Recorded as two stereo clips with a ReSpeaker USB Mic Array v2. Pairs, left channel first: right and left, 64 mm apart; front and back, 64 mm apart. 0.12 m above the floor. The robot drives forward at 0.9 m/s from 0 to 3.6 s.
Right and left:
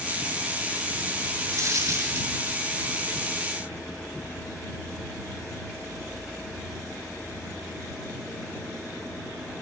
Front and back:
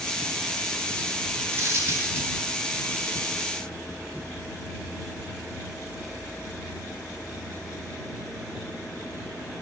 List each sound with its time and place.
1.5 s a dropped coin: 125° left, 7.5 m; by 2.3 s 130° left, 8 m